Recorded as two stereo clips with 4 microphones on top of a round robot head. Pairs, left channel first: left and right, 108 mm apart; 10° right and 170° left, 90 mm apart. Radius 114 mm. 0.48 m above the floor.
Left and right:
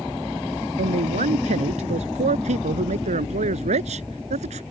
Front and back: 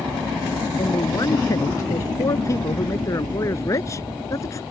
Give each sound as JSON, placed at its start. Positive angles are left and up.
{"t": 0.8, "sound": "a man speaking", "azimuth_deg": -70}